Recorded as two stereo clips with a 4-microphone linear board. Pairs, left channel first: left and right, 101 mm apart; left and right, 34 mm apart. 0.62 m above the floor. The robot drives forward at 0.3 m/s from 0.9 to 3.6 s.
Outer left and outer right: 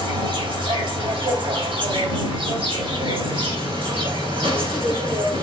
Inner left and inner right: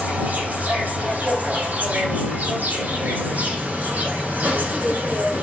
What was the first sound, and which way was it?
An insect, 70° right (ahead or behind).